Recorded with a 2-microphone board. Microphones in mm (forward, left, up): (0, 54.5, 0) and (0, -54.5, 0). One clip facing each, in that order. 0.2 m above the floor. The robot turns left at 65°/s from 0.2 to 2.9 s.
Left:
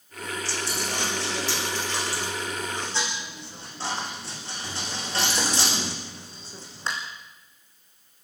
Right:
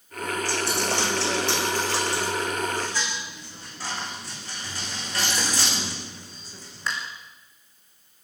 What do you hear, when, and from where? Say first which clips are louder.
0.5 s a dropped coin: right 5 dB; 50° right (ahead or behind), 5.5 m; by 6.9 s 30° left (ahead or behind), 5.5 m